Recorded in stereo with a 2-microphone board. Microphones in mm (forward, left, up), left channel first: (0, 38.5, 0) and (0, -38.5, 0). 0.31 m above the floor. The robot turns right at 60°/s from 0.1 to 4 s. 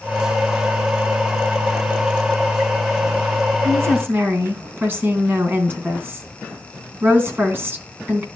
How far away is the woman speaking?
About 3 m.